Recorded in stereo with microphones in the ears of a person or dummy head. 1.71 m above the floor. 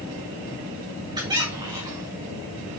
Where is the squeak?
20° right (ahead or behind), 1.8 m.